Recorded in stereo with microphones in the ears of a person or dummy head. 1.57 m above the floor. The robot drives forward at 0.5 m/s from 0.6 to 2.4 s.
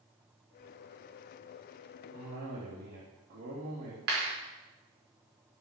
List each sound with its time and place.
2.1 s a cough: 50° right (ahead or behind), 3.5 m
4.1 s a clap: 65° right (ahead or behind), 5 m